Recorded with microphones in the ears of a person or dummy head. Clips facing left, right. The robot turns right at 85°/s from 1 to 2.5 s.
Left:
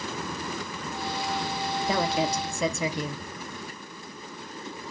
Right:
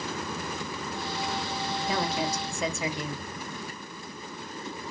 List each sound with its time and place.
1.8 s a woman speaking: 35° left, 0.7 m; by 3.2 s 90° left, 0.7 m